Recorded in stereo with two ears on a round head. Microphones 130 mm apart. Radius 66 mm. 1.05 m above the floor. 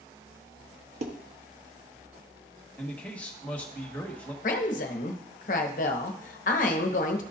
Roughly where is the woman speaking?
Left.